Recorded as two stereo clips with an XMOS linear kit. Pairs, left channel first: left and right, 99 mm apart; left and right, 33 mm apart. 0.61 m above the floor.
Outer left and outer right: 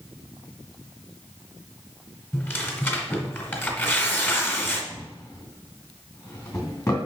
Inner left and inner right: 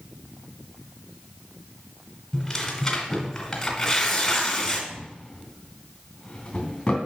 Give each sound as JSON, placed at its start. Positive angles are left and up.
{"t": 2.3, "sound": "tearing paper", "side_deg": 20, "distance_m": 1.8}
{"t": 4.9, "sound": "a drawer", "side_deg": 30, "distance_m": 3.0}